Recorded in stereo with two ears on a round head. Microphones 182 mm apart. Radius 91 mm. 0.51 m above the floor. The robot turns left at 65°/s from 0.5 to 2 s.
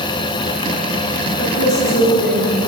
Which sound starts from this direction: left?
A woman speaking, at 1.4 s.